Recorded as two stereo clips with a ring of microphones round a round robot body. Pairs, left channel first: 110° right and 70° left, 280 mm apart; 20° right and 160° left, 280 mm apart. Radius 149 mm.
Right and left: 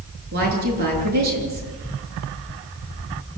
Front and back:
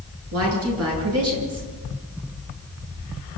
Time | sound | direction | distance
0.3 | a woman speaking | 125° left | 8 m